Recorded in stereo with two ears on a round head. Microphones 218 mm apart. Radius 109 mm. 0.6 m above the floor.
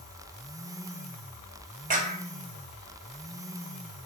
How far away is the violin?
I don't hear a violin.